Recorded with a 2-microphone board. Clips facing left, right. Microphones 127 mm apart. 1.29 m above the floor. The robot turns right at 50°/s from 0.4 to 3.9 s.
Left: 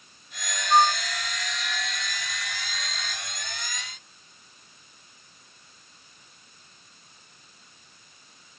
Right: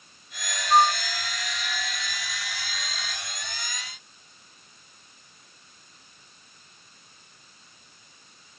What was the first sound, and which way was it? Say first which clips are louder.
A flute: even; 10° right (ahead or behind).